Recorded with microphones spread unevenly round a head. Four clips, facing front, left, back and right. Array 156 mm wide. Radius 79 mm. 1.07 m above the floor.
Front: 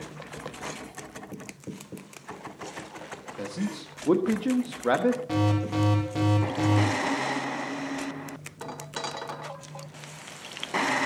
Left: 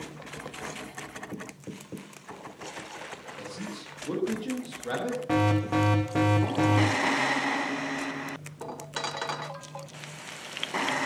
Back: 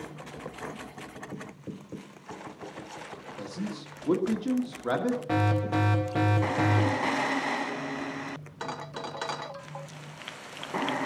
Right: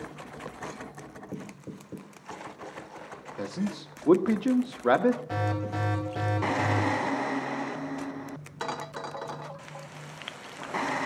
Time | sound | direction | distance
3.4 | a man speaking | 55° right | 1.5 m
5.3 | an alarm | 120° left | 3 m